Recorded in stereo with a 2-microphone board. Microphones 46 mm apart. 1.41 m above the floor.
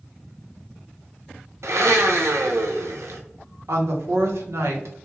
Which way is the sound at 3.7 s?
75° right (ahead or behind).